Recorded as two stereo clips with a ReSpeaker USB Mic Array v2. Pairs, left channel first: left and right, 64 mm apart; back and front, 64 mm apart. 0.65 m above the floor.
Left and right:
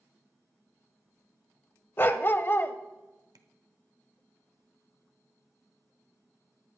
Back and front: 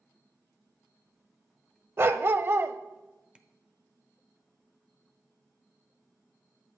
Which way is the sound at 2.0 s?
45° left.